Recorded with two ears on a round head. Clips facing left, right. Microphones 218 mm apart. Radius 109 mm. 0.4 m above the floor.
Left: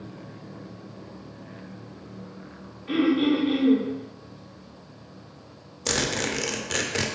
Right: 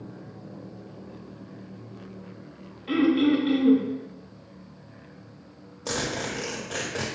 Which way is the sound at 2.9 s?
50° right (ahead or behind).